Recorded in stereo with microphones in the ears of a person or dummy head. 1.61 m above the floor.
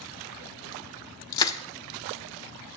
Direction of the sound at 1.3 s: 25° left (ahead or behind).